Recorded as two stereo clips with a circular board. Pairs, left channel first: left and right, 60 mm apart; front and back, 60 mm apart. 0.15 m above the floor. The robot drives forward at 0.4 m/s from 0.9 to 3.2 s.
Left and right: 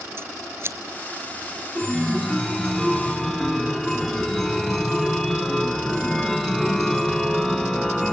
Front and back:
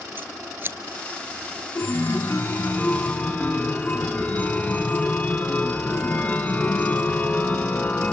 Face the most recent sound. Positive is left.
turn(degrees=15)